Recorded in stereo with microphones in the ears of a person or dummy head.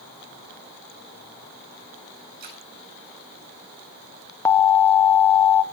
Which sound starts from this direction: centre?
An alarm, at 4.5 s.